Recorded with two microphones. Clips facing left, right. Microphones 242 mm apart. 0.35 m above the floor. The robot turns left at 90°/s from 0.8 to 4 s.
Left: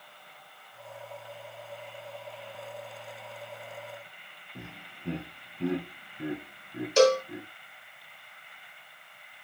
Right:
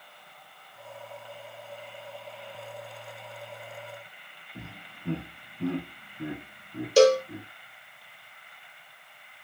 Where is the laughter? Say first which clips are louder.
Right 1 dB; 5° right (ahead or behind), 2.5 m.